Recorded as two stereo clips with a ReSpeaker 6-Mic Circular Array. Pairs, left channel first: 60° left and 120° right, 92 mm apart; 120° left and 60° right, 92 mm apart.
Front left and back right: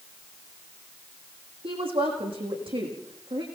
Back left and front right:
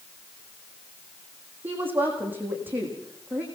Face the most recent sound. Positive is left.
turn(degrees=-130)